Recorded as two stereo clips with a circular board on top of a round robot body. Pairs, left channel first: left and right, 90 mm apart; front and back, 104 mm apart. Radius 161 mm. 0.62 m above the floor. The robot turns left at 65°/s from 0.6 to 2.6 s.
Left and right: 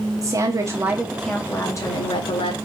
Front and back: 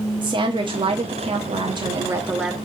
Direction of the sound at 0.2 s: 140° right.